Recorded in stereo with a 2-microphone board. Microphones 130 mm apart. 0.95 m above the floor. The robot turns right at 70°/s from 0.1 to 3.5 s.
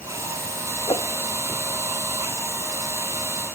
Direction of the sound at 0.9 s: 35° left (ahead or behind).